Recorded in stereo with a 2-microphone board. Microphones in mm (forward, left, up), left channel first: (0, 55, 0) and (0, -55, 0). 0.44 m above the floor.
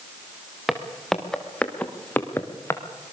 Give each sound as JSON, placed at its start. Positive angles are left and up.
{"t": 0.7, "sound": "footsteps", "side_deg": 0, "distance_m": 3.0}